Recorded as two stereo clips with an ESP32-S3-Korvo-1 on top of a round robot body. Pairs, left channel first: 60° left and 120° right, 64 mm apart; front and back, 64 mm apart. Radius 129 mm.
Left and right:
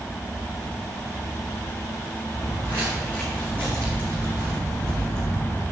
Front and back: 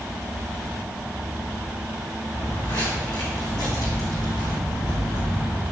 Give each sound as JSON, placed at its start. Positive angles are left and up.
{"t": 2.3, "sound": "footsteps", "azimuth_deg": -10, "distance_m": 4.5}